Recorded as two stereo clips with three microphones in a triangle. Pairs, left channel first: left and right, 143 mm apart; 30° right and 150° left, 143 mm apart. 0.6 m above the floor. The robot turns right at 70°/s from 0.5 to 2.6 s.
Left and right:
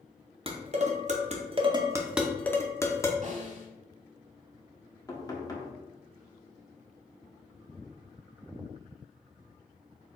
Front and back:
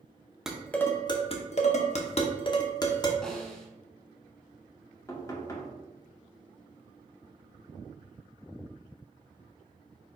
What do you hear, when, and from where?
0.5 s dishes clattering: 125° right, 0.6 m; by 3.1 s 20° left, 0.6 m
3.2 s a snare drum: 115° right, 1.0 m
5.1 s knocking: 30° left, 0.8 m